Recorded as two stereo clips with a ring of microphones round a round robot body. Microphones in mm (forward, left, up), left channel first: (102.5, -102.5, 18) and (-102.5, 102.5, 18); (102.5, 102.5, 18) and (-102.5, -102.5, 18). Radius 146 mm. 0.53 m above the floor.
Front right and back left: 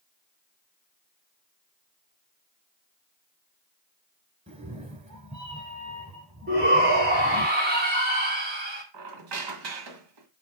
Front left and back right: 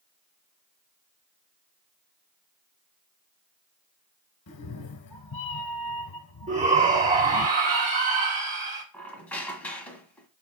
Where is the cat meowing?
70° left, 1.0 m.